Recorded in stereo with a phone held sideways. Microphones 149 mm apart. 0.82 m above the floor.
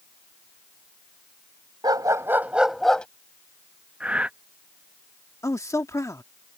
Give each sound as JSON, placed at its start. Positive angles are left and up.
{"t": 1.8, "sound": "a dog barking", "side_deg": -30}
{"t": 4.0, "sound": "breathing", "side_deg": -5}
{"t": 5.4, "sound": "a man speaking", "side_deg": 20}